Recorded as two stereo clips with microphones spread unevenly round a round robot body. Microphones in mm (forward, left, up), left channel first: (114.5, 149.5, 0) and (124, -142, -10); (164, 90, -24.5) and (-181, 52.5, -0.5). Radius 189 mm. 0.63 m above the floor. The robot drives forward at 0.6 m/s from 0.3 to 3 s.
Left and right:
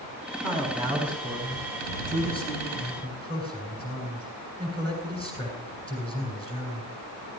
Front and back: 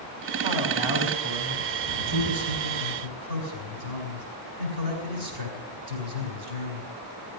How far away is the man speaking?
About 5.5 m.